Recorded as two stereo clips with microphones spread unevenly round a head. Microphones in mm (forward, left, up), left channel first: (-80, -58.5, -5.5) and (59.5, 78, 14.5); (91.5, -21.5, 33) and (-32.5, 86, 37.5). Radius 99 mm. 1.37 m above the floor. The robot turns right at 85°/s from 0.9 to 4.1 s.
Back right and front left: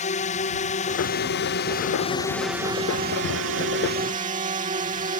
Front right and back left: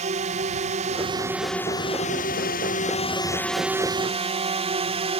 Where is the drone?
Straight behind; by 5.2 s 95° left.